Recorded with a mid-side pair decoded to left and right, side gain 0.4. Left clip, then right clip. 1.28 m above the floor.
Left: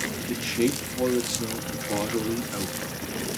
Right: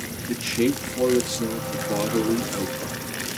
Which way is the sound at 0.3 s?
15° right.